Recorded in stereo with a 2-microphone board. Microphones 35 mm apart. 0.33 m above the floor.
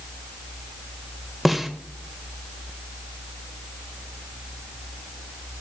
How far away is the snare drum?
About 0.7 m.